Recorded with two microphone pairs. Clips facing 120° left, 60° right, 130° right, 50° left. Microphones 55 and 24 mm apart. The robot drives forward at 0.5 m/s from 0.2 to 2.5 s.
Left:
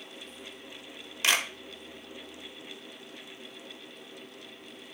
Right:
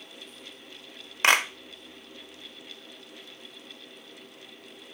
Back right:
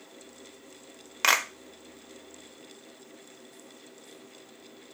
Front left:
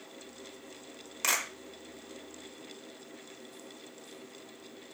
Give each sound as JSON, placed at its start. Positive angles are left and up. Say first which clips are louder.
{"t": 1.2, "sound": "a clap", "louder": "right 6 dB, back right 7 dB", "azimuth_deg": -90, "distance_m": 1.0}